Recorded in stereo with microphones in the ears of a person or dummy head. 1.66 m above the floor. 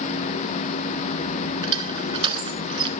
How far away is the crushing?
About 3 m.